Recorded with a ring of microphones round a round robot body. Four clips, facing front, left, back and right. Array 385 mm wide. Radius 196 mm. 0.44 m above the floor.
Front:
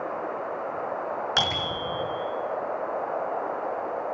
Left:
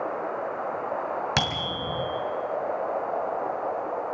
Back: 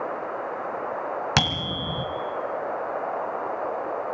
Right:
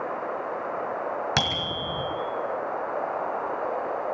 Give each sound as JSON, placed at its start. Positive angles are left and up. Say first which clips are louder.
{"t": 1.4, "sound": "a bicycle bell", "louder": "even, back 1 dB", "azimuth_deg": 180, "distance_m": 3.5}